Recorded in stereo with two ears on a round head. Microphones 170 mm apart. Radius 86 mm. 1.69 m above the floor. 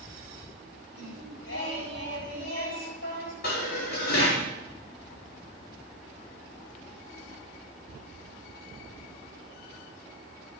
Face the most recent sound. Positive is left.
turn(degrees=50)  # may be behind; listen again after turning